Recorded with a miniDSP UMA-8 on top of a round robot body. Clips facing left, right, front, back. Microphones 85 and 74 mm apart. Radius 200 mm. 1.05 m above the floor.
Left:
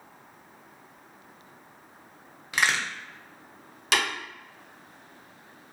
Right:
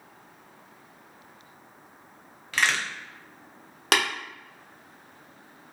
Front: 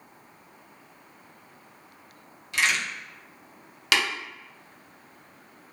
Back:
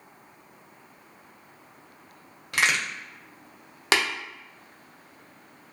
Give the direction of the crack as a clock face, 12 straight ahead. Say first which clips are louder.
Even, back 1 dB; 7 o'clock.